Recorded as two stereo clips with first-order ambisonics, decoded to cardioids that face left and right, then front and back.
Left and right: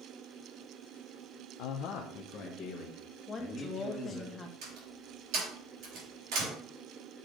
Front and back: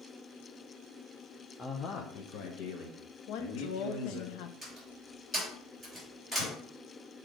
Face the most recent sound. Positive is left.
turn(degrees=-85)